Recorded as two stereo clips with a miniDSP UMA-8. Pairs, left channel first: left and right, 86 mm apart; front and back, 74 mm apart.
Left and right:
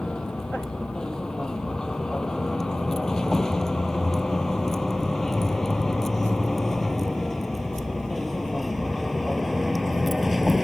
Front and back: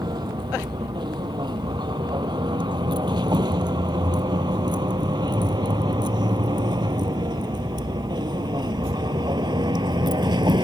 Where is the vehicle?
170° left; by 10.7 s straight behind.